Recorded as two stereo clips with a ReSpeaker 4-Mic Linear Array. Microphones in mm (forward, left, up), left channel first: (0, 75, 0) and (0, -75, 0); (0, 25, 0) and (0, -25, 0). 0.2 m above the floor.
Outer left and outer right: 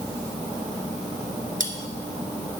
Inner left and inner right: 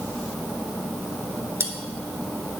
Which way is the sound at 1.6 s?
65° right (ahead or behind).